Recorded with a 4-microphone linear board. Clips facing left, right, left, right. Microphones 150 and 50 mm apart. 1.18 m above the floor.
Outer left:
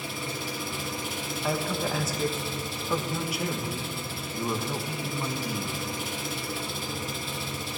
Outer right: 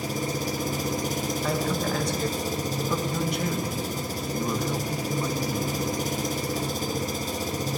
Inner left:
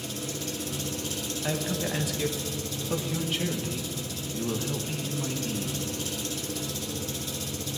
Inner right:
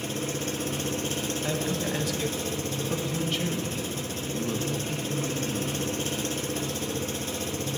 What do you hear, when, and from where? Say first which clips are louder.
0.0 s an engine running: outer right 6 dB, inner right 4 dB; 40° right (ahead or behind), 0.8 m
1.4 s a man speaking: even, inner left 1 dB; 5° left (ahead or behind), 1.3 m